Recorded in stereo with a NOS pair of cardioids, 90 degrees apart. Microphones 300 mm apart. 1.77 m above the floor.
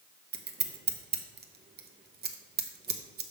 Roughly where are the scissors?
Ahead right.